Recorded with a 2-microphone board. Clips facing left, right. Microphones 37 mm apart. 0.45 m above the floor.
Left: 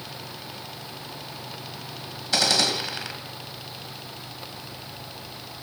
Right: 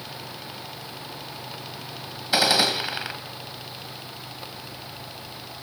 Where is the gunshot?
15° right (ahead or behind), 2.5 m.